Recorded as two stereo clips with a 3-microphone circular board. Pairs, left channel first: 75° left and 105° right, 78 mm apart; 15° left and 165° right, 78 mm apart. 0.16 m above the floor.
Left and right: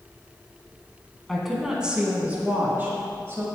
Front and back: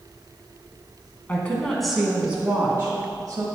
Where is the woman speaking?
10° right, 1.2 m; by 3.5 s 145° right, 1.7 m.